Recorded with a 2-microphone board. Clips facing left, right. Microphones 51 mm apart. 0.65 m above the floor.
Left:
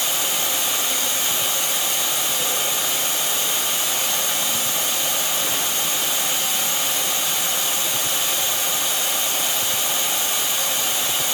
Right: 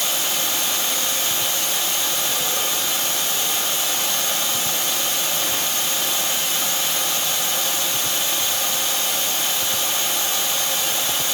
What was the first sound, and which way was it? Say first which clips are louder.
Running water: even; 20° left (ahead or behind).